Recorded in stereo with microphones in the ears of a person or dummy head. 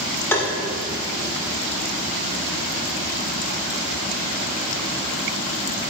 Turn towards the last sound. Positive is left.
turn(degrees=10)  # may be behind; listen again after turning